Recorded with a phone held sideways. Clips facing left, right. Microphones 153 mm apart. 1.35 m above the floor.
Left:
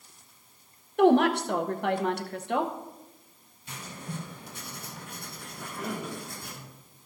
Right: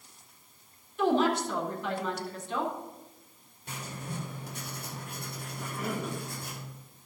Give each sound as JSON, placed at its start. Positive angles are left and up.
{"t": 1.0, "sound": "a woman speaking", "side_deg": 70, "distance_m": 0.9}
{"t": 3.7, "sound": "writing", "side_deg": -65, "distance_m": 3.0}
{"t": 5.6, "sound": "a cough", "side_deg": -5, "distance_m": 2.0}